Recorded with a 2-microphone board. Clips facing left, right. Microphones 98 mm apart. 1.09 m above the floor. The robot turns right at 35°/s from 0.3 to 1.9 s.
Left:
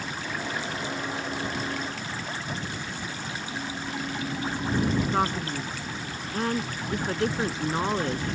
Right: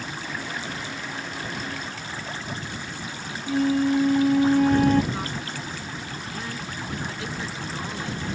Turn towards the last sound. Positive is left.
turn(degrees=50)  # may be behind; listen again after turning